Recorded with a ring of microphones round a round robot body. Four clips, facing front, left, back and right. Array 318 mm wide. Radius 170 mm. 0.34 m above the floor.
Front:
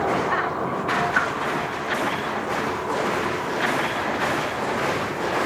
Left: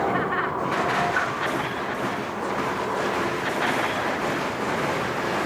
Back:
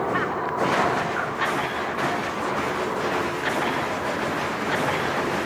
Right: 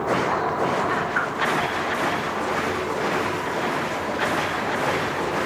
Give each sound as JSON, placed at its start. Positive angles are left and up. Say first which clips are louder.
{"t": 1.1, "sound": "a whoosh", "louder": "right 1 dB, front 4 dB", "azimuth_deg": -20, "distance_m": 4.5}